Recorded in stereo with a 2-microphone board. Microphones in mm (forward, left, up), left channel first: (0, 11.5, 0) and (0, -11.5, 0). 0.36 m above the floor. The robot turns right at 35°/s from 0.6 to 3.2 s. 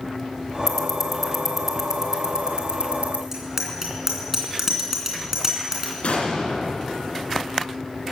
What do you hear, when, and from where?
0.7 s ticking: 20° left (ahead or behind), 1.8 m; by 3.2 s 65° right (ahead or behind), 1.8 m
3.3 s a bicycle bell: 15° right (ahead or behind), 2.5 m
6.0 s an explosion: 65° left (ahead or behind), 3 m